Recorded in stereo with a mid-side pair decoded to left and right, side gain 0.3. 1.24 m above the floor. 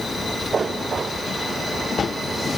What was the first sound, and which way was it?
Only background noise.